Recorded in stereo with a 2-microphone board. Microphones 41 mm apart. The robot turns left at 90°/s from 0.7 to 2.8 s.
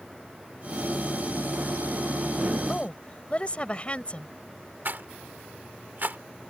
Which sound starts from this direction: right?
A rattle, at 4.8 s.